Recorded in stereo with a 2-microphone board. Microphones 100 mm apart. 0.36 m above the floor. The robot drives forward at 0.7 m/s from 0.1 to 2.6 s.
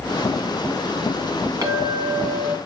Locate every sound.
1.6 s a clink: 35° right (ahead or behind), 2.5 m; by 2.6 s 30° right (ahead or behind), 3 m